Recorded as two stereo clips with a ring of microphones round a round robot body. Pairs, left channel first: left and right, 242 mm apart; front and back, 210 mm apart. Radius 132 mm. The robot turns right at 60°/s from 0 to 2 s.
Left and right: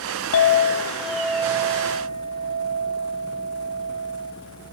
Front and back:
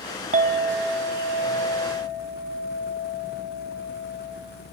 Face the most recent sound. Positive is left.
turn(degrees=-135)